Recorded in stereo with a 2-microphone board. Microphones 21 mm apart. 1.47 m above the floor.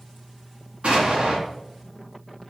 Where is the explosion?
65° right (ahead or behind), 4 m.